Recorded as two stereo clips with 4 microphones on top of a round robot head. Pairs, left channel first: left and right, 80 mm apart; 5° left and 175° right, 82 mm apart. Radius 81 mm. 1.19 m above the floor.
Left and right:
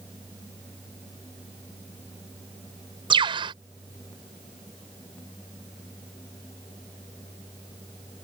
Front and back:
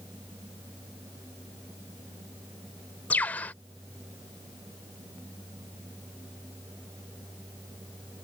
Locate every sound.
3.1 s a bird: 70° right